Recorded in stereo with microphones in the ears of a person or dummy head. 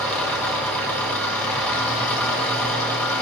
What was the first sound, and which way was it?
An engine running, 10° left (ahead or behind).